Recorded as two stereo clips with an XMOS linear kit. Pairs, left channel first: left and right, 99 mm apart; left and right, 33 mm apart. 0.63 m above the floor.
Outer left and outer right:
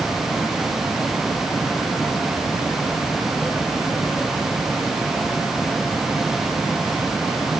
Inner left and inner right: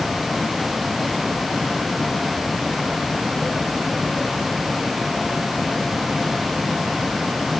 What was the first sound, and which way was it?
Only background noise.